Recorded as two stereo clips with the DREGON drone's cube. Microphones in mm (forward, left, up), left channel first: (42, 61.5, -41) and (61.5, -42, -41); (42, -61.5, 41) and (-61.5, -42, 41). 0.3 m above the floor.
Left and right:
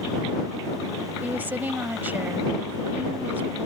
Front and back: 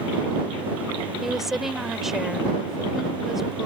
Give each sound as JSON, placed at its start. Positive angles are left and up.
{"t": 1.2, "sound": "a woman speaking", "azimuth_deg": -105}